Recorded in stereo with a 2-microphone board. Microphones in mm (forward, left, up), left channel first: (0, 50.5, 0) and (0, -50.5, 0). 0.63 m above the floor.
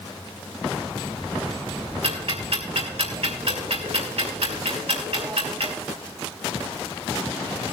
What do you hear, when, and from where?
2.0 s ticking: 70° right (ahead or behind), 3 m